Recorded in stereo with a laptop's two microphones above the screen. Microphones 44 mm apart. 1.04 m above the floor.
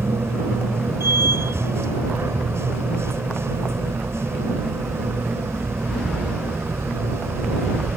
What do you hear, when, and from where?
0.0 s a machine running: 85° right